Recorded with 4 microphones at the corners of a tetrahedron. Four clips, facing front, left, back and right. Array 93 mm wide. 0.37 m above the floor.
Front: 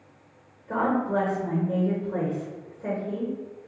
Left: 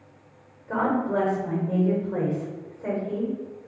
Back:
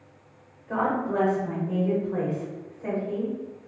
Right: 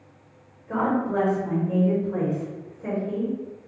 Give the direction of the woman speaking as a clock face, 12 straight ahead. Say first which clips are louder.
Even, front 1 dB; 10 o'clock.